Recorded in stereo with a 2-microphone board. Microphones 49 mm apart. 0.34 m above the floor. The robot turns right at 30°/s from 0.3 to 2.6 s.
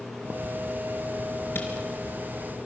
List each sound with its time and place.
1.6 s a camera shutter: 55° left (ahead or behind), 5 m; by 1.7 s 50° left (ahead or behind), 5 m